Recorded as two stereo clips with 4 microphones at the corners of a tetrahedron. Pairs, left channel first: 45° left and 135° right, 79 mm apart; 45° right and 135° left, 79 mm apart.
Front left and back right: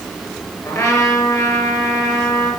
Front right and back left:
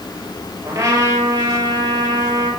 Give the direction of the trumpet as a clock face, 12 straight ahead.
9 o'clock.